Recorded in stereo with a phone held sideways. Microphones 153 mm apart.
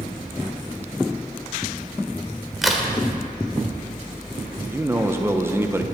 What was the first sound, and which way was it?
A crack, centre (ahead or behind).